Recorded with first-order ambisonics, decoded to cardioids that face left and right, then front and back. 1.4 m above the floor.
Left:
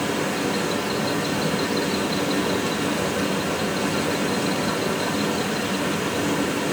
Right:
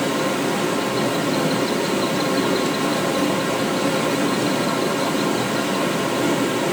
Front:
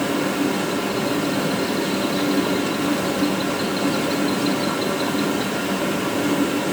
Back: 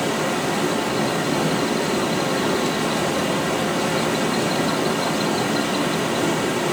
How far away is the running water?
About 1.7 m.